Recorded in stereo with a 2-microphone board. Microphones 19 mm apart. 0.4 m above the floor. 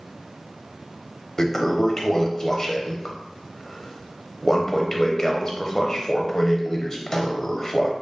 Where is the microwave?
I don't hear a microwave.